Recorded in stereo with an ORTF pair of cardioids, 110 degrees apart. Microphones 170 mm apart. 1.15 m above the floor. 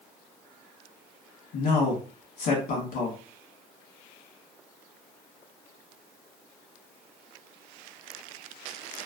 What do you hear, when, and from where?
1.5 s a man speaking: 65° left, 1.3 m